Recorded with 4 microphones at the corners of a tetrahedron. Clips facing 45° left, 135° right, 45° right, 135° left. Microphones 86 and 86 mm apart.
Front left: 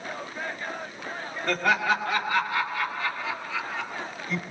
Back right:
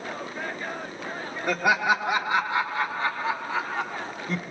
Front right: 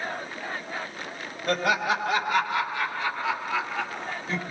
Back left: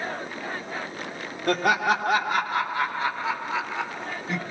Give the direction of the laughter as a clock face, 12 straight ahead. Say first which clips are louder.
Back right 1 dB, back left 2 dB; 7 o'clock.